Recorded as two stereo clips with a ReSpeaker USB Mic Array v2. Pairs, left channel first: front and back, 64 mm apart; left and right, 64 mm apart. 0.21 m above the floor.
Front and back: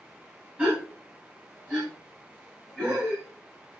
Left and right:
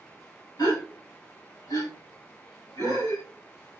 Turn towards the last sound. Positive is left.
turn(degrees=110)